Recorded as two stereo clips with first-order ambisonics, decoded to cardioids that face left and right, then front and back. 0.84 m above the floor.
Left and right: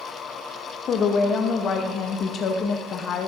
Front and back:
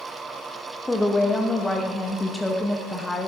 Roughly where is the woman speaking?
Left.